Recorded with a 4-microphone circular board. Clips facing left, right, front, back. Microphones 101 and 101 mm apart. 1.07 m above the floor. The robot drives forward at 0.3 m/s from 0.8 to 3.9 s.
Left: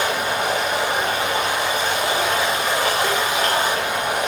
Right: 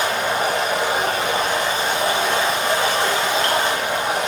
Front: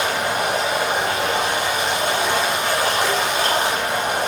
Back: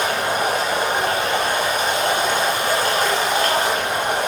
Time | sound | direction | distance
0.0 | running water | 135° right | 4.5 m